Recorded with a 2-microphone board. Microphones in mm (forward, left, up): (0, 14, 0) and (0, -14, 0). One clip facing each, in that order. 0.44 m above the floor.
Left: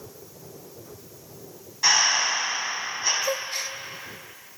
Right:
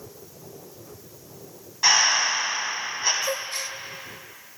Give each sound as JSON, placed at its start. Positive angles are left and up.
{"t": 1.8, "sound": "breathing", "side_deg": -15, "distance_m": 3.5}
{"t": 3.2, "sound": "a gasp", "side_deg": 10, "distance_m": 0.5}